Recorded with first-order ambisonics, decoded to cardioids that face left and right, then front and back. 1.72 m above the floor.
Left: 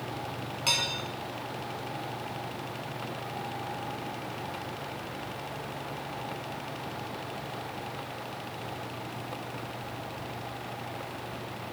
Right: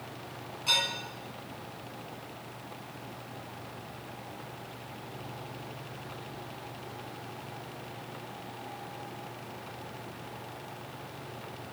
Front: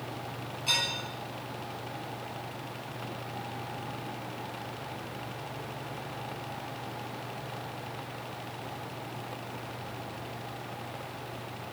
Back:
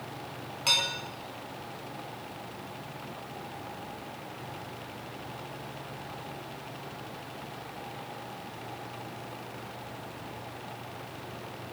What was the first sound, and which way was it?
Dishes clattering, 140° left.